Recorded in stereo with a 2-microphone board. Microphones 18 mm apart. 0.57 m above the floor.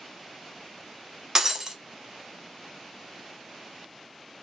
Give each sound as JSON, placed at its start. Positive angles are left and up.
{"t": 1.4, "sound": "breaking glass", "side_deg": -25, "distance_m": 0.6}